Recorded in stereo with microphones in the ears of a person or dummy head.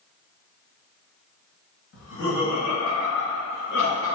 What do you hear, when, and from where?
1.9 s laughter: 70° left (ahead or behind), 1.7 m; by 4.1 s 65° left (ahead or behind), 4 m